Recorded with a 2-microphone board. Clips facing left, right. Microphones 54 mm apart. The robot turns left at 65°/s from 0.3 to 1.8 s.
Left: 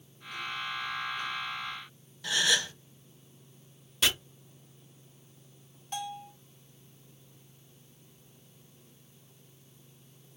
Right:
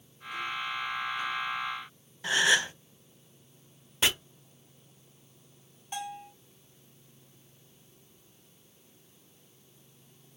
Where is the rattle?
No rattle in this recording.